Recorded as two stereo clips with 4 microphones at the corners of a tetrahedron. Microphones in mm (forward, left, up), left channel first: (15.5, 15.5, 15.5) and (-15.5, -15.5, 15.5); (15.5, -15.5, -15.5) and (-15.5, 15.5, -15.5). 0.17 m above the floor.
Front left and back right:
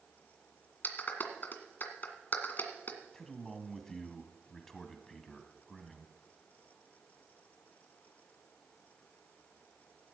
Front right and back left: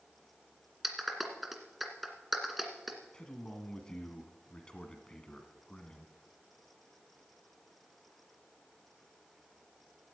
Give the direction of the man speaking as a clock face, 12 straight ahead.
1 o'clock.